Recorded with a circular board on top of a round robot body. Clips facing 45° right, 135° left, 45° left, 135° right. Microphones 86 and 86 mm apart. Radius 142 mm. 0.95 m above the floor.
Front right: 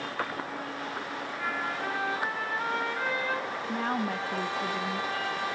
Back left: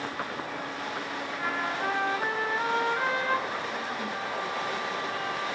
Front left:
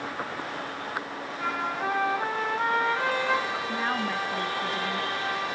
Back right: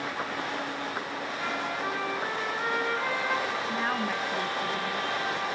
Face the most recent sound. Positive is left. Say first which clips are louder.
# front right 3 dB, front left 2 dB
turn(degrees=-40)